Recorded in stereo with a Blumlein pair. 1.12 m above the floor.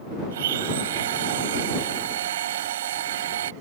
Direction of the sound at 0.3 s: 60° right.